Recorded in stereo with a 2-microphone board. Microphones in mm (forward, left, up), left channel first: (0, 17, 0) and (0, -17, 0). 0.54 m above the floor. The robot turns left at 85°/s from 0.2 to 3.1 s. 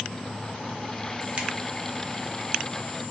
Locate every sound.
1.4 s a finger snap: 30° right (ahead or behind), 0.6 m